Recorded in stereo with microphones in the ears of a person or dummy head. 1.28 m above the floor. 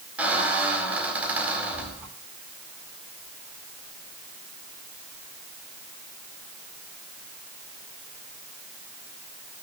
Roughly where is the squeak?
Centre.